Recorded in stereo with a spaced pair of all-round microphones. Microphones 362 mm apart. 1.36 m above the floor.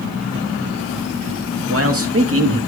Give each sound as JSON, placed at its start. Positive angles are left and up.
{"t": 1.7, "sound": "a man speaking", "side_deg": -40, "distance_m": 2.0}